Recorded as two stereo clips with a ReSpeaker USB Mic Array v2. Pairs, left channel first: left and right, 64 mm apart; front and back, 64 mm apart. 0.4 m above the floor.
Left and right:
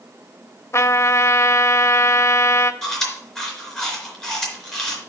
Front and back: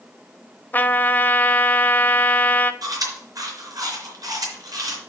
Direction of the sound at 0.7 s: 55° left.